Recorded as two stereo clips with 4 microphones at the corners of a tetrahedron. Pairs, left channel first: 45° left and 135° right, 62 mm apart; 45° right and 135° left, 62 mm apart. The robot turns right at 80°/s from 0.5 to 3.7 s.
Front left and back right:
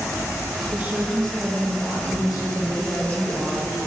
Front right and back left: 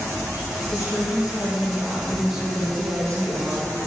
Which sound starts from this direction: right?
A woman speaking, at 0.7 s.